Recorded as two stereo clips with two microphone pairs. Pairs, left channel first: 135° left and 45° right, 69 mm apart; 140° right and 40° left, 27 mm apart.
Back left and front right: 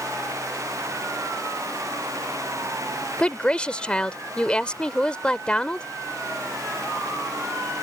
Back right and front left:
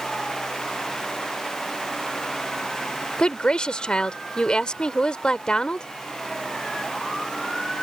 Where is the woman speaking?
160° right.